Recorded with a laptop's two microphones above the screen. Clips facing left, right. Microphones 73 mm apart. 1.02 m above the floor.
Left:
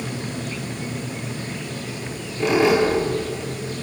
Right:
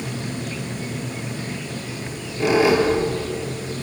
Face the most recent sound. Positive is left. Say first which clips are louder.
# even
turn(degrees=-5)  # may be behind; listen again after turning